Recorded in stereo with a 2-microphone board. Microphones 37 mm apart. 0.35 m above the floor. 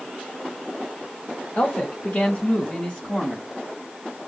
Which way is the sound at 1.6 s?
30° left (ahead or behind).